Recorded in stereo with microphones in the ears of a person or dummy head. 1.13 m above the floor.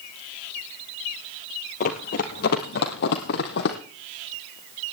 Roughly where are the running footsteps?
Left.